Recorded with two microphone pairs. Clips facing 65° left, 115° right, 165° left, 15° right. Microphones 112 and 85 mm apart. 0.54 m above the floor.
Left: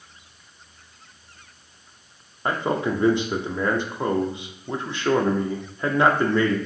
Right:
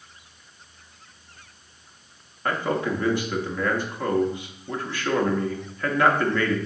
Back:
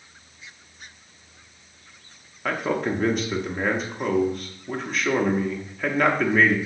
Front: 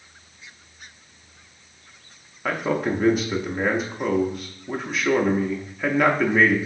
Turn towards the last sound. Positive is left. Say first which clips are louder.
# left 1 dB, front 1 dB
turn(degrees=70)